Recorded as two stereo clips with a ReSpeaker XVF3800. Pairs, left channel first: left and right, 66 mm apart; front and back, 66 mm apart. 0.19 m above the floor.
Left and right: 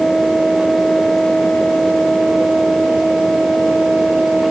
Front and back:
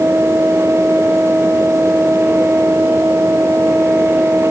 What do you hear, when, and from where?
Only background noise.